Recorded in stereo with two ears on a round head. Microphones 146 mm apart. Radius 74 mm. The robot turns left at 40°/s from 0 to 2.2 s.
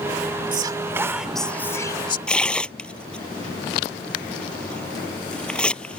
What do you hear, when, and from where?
0.5 s whispering: 150° right; by 2.2 s 145° left
2.3 s tearing paper: 5° left (ahead or behind)